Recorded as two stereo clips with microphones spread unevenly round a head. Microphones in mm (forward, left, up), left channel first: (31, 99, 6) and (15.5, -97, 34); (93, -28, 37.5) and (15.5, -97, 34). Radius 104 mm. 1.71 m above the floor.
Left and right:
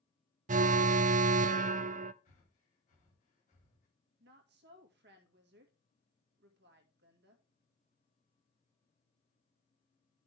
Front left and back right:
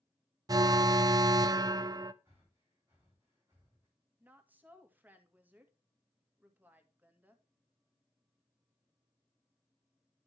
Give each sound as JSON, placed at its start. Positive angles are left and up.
{"t": 0.5, "sound": "an alarm", "azimuth_deg": -130, "distance_m": 0.5}
{"t": 2.2, "sound": "breathing", "azimuth_deg": 140, "distance_m": 3.5}
{"t": 4.2, "sound": "a woman speaking", "azimuth_deg": -65, "distance_m": 2.0}